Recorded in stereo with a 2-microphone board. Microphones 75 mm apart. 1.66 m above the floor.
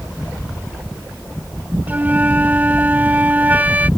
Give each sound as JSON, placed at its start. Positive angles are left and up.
{"t": 1.9, "sound": "a flute", "side_deg": -25}